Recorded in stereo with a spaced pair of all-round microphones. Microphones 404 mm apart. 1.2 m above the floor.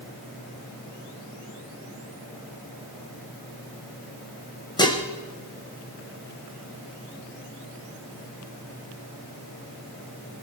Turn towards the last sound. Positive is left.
turn(degrees=10)  # may be behind; listen again after turning